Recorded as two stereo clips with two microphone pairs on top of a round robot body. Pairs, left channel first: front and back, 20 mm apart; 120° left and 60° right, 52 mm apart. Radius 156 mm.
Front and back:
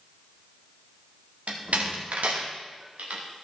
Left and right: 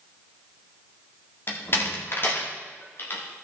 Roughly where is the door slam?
Behind.